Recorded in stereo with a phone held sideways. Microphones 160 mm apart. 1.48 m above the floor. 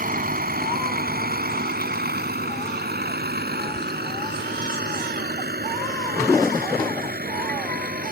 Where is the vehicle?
65° right (ahead or behind); by 8.1 s 70° right (ahead or behind).